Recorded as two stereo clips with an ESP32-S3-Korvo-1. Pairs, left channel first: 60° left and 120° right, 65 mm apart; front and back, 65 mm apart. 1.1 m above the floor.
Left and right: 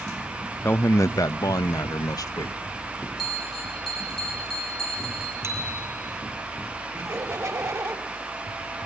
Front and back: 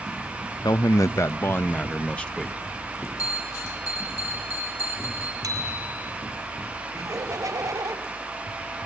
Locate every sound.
0.6 s a man speaking: 10° left, 0.7 m; by 2.6 s 80° left, 1.2 m
3.2 s a bell: 25° right, 6.5 m
5.4 s a bicycle bell: 160° right, 5 m
6.9 s laughter: 150° right, 5 m